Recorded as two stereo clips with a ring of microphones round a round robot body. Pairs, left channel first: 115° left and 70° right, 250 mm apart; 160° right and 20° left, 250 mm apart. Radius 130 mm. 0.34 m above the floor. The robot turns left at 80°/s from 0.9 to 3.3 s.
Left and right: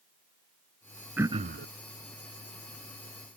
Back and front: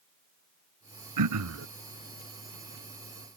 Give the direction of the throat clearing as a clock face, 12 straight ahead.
11 o'clock.